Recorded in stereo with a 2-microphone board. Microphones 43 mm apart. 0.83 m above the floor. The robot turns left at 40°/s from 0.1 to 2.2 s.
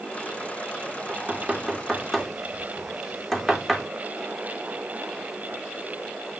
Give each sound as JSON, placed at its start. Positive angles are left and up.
{"t": 1.1, "sound": "knocking", "side_deg": -30, "distance_m": 0.9}